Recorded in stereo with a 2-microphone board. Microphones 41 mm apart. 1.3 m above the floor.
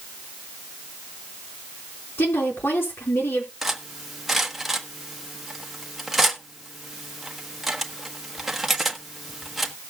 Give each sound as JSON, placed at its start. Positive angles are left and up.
{"t": 2.2, "sound": "a woman speaking", "side_deg": 80, "distance_m": 4.5}
{"t": 3.6, "sound": "cutlery clinking", "side_deg": -5, "distance_m": 1.2}